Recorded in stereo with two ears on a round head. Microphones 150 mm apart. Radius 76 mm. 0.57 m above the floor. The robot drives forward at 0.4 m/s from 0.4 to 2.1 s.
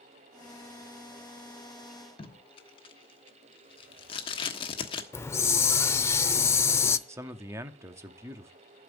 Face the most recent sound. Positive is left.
turn(degrees=-15)  # may be behind; listen again after turning